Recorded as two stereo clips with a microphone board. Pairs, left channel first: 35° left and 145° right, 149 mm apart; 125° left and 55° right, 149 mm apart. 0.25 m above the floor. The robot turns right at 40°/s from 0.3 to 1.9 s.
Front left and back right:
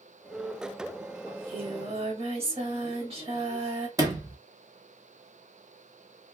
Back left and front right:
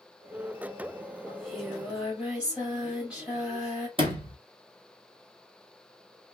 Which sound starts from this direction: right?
A sliding door, at 4.0 s.